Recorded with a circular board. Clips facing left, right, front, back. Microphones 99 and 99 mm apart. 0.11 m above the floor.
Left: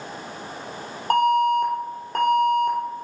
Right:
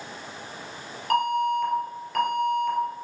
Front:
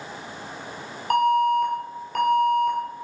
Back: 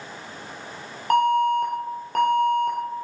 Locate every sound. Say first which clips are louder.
1.1 s an alarm: left 5 dB, even; 140° left, 1.9 m